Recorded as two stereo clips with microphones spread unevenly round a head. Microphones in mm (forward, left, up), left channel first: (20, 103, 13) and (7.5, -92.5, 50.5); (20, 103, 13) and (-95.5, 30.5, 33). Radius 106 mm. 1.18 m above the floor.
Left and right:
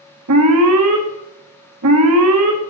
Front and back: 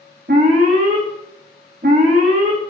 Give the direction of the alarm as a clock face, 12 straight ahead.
3 o'clock.